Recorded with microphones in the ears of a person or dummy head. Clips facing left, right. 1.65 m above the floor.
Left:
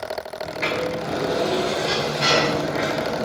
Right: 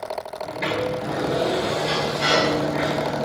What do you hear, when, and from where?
0.4 s a sliding door: 5° left (ahead or behind), 2.5 m